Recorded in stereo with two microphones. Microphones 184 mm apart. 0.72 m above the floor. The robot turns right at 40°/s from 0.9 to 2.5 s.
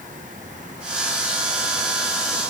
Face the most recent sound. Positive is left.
No sound to turn to.